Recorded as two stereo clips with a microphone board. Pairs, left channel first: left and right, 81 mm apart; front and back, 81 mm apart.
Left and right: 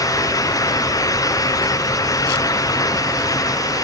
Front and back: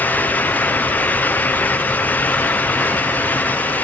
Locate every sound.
Only background noise.